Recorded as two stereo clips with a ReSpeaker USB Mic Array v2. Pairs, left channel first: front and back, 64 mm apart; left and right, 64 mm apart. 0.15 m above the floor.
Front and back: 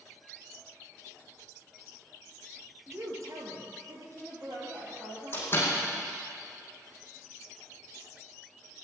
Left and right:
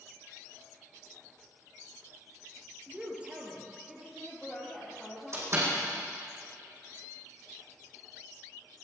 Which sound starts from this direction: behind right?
A woman speaking, at 2.9 s.